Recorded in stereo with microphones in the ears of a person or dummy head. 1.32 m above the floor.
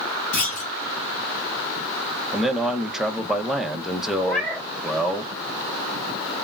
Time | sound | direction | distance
0.3 | a clunk | 45° left (ahead or behind) | 1.5 m
2.3 | a man speaking | 5° right (ahead or behind) | 0.7 m
4.2 | a cat meowing | 5° left (ahead or behind) | 1.6 m